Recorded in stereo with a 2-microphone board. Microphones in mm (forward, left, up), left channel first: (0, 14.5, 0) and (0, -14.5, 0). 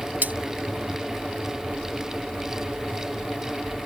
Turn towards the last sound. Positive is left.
turn(degrees=-70)  # may be behind; listen again after turning